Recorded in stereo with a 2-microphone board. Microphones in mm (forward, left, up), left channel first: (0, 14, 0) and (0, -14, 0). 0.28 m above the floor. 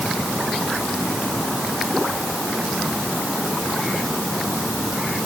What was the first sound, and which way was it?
Only background noise.